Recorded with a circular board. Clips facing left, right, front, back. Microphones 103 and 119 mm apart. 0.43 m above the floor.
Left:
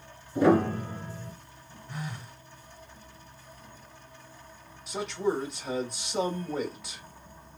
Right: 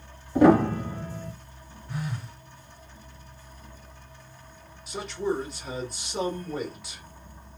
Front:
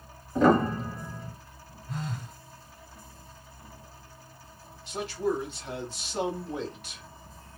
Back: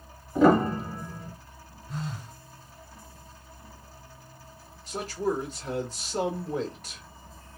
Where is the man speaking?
Straight behind, 1.1 m.